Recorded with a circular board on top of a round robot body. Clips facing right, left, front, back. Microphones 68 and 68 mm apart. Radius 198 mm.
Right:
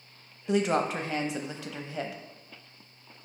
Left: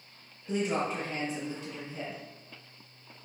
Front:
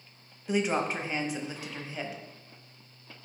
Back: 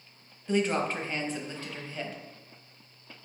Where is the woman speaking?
75° right, 0.8 m.